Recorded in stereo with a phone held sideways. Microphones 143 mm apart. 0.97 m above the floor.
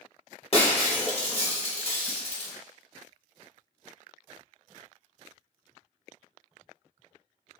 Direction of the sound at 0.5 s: 45° left (ahead or behind).